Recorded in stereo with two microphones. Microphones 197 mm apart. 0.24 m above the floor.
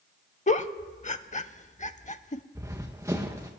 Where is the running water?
No running water in this recording.